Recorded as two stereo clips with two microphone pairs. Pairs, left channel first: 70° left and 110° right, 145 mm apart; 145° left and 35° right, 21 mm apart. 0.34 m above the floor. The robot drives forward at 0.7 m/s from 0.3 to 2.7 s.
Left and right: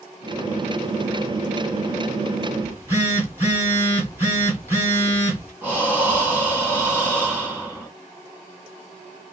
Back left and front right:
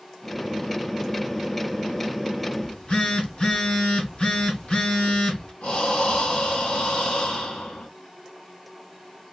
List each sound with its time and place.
2.6 s a phone buzzing: straight behind, 2 m
5.6 s breathing: 170° left, 2.5 m